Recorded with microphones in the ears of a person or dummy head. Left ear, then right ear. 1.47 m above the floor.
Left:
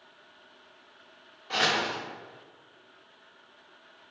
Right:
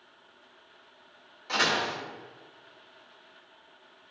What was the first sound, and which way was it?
A door slam, 70° right (ahead or behind).